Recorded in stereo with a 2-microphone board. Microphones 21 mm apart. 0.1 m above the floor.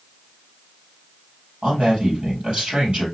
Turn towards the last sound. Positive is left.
turn(degrees=-60)  # may be behind; listen again after turning